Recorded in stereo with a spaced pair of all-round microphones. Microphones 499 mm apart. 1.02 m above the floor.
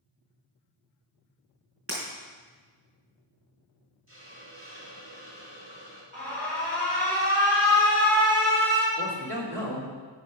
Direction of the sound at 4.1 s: 50° right (ahead or behind).